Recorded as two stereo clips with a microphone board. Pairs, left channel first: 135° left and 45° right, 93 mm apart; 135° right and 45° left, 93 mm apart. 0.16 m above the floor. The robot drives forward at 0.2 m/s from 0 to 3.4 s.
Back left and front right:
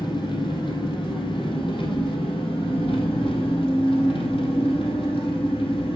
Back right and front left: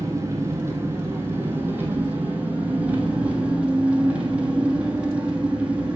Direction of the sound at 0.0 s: 105° left.